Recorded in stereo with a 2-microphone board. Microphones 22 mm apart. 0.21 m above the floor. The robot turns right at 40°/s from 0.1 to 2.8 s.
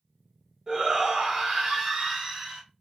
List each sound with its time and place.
0.7 s a shout: 25° right (ahead or behind), 1.6 m; by 2.6 s centre (ahead or behind), 1.6 m